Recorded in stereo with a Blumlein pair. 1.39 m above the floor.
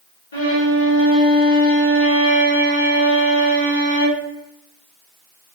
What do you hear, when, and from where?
0.3 s a violin: 60° left, 1.3 m